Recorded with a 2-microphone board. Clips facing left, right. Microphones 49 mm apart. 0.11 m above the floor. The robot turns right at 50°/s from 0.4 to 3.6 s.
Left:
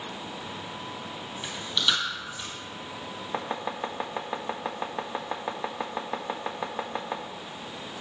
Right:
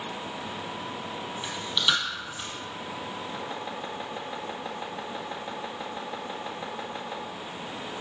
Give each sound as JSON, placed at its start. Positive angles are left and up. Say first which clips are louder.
{"t": 1.4, "sound": "chewing", "louder": "right 1 dB", "side_deg": 10, "distance_m": 3.5}
{"t": 3.3, "sound": "chopping", "louder": "left 3 dB", "side_deg": 50, "distance_m": 1.6}